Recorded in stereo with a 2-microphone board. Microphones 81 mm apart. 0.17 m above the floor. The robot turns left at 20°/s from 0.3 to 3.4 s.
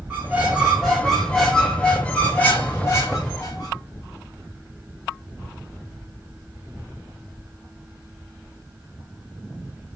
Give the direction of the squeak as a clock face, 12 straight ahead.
5 o'clock.